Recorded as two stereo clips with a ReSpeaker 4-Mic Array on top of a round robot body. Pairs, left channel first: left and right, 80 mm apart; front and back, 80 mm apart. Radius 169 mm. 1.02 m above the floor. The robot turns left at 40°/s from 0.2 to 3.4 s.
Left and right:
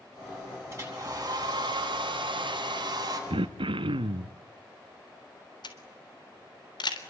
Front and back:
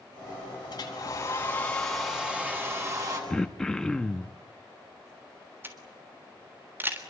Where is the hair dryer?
35° right, 9.5 m; by 3.2 s 135° right, 9.5 m.